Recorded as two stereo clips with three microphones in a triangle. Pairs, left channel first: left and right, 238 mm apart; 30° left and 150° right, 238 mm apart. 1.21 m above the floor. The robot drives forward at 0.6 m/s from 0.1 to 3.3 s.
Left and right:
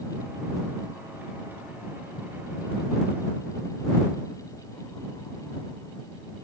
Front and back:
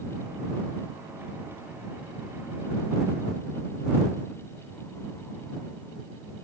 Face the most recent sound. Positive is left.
No sound to turn to.